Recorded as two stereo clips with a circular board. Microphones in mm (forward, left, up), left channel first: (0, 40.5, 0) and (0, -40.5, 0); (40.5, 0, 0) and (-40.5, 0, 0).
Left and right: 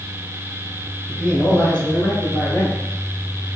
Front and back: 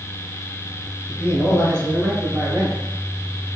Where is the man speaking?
30° left, 1.6 m; by 2.8 s 165° left, 1.4 m.